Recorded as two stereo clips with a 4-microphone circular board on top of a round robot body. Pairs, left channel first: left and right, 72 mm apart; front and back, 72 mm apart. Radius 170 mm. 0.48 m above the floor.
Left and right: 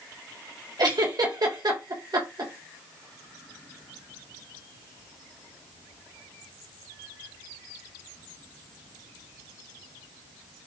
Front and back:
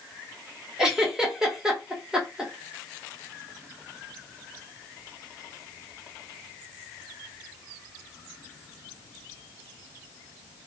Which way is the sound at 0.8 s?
95° right.